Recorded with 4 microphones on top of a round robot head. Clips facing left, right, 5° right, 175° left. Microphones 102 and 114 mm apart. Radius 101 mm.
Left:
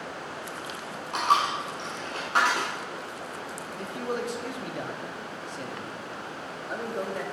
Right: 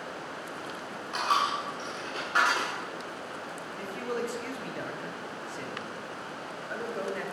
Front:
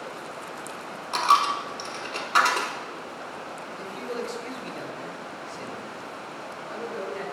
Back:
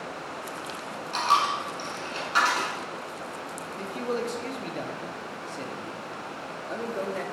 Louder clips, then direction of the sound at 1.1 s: Left 3 dB, front 3 dB; 25° left.